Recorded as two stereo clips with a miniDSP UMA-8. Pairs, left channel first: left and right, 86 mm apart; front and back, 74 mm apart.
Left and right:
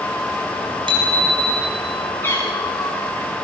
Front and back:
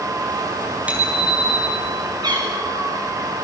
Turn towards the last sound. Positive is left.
turn(degrees=155)